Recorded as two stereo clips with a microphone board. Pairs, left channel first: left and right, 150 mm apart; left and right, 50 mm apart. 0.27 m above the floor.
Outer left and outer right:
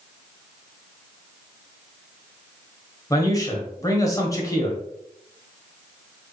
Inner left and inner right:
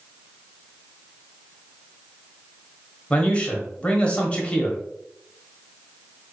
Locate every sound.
3.1 s a man speaking: 20° left (ahead or behind), 1.3 m